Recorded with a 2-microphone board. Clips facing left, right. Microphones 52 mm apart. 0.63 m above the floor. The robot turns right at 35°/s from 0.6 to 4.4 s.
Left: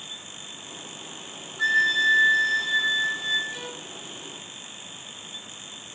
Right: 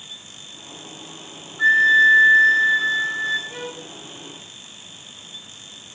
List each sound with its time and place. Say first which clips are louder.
1.6 s a flute: right 8 dB; 165° right, 3 m; by 3.4 s 100° right, 3 m
3.5 s a violin: right 3 dB; 35° right (ahead or behind), 0.8 m; by 3.9 s 20° right (ahead or behind), 0.8 m